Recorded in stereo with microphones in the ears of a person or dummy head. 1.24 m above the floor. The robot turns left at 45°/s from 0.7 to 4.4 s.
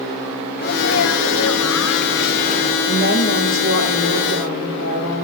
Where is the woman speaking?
165° left, 9.5 m; by 5.2 s 95° left, 9.5 m.